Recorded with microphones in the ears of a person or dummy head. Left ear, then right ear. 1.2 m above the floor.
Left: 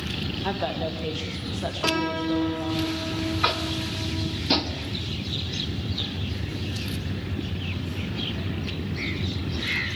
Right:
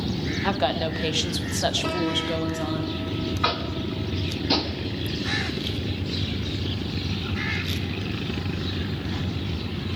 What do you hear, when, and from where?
0.4 s a woman speaking: 20° right (ahead or behind), 1.1 m; by 2.8 s 60° right (ahead or behind), 1.2 m
1.8 s a piano: 65° left (ahead or behind), 1.4 m
3.4 s tapping: centre (ahead or behind), 0.8 m